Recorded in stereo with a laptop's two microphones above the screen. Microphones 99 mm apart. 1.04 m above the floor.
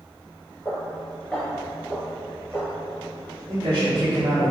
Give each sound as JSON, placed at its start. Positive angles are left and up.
{"t": 0.7, "sound": "footsteps", "side_deg": 15, "distance_m": 1.2}
{"t": 3.5, "sound": "a man speaking", "side_deg": -55, "distance_m": 1.0}